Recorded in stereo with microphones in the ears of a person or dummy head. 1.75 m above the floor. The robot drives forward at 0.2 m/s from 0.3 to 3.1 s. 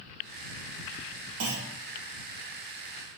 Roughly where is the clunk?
Right.